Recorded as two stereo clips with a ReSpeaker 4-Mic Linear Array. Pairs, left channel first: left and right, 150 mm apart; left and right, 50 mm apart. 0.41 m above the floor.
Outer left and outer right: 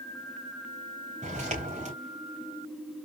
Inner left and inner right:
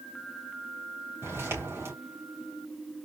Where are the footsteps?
55° right (ahead or behind), 3 m.